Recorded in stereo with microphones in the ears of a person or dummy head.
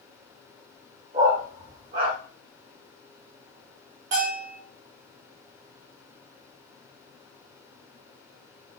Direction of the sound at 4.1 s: 40° right (ahead or behind).